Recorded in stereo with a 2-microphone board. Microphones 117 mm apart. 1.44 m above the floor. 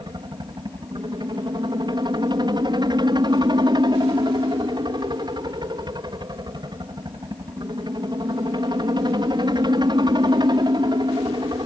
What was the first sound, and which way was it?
A helicopter, 40° right (ahead or behind).